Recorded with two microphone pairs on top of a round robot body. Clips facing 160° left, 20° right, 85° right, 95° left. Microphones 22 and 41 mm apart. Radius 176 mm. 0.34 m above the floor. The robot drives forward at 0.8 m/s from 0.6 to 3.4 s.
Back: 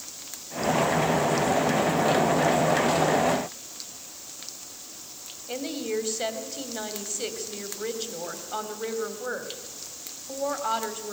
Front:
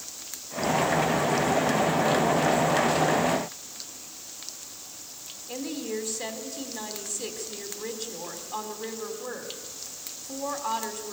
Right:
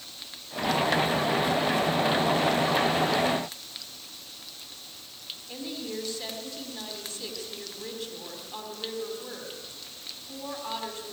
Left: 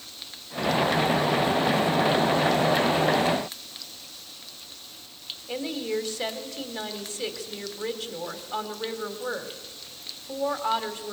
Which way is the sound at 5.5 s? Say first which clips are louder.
Back 2 dB, left 7 dB; 115° left.